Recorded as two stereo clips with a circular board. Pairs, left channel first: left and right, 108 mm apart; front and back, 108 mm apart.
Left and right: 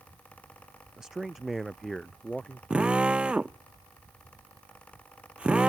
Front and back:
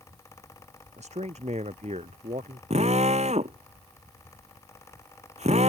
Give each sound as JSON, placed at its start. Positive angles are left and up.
{"t": 1.0, "sound": "a man speaking", "azimuth_deg": -175}
{"t": 2.7, "sound": "a drill", "azimuth_deg": -170}